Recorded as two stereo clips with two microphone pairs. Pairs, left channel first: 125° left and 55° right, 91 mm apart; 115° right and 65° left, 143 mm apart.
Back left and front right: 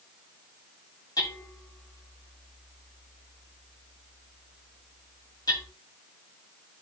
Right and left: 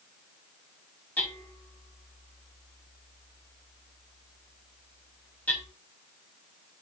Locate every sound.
1.2 s hammering: 165° left, 7 m